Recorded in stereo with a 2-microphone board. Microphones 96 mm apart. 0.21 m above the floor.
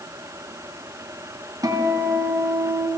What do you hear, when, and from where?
1.6 s a guitar: 40° right (ahead or behind), 1.7 m